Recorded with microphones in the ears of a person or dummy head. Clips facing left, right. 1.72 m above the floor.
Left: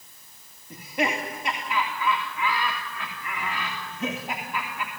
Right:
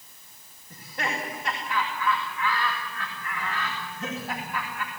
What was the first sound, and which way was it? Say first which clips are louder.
Laughter: left 6 dB; 15° left (ahead or behind).